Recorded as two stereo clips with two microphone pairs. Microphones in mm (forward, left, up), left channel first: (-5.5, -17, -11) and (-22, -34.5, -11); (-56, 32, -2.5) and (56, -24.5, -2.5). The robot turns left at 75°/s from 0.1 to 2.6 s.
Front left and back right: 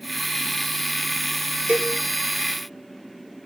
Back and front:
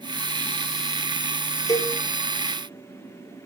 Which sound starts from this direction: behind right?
A cowbell, at 1.7 s.